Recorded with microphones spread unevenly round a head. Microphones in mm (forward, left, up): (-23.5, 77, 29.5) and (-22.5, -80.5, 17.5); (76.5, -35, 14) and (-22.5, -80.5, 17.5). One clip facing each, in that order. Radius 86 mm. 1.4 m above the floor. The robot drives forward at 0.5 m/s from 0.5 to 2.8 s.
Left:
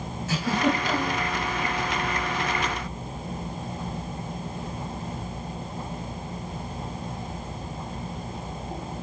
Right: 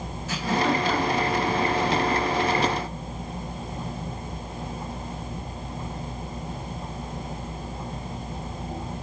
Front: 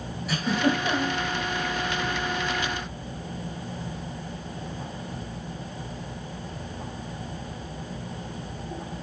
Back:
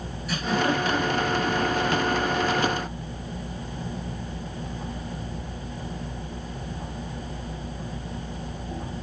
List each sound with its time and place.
0.3 s a giggle: 35° left, 1.6 m; by 1.2 s 45° left, 1.4 m